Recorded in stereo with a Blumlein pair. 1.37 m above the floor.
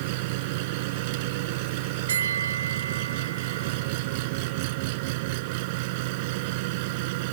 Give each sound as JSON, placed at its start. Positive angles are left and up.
{"t": 0.0, "sound": "an engine running", "azimuth_deg": -50}
{"t": 2.1, "sound": "a bell", "azimuth_deg": -65}